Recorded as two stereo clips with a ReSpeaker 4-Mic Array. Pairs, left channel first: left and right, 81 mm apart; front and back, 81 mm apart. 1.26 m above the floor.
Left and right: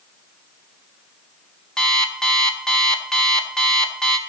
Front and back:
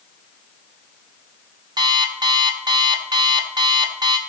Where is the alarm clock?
170° left, 1.5 m.